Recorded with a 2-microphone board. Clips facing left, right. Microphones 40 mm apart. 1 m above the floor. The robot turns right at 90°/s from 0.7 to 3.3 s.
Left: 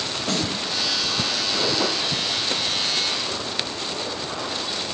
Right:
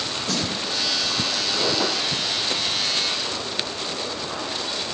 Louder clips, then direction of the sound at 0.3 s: Left 2 dB; 60° left (ahead or behind).